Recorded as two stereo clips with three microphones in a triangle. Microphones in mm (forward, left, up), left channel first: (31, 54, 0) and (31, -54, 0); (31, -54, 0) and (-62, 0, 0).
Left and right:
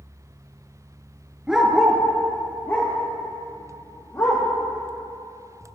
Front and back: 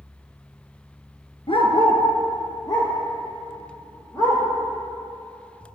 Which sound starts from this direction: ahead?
A dog barking, at 1.5 s.